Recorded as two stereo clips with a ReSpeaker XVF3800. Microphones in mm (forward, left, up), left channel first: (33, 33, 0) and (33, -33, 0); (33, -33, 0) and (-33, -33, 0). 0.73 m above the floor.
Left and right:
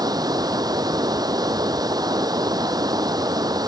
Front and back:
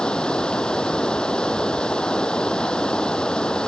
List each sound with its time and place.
0.0 s running water: 75° right